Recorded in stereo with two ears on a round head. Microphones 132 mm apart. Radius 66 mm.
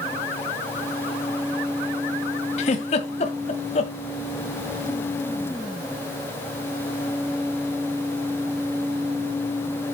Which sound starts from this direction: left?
A giggle, at 2.6 s.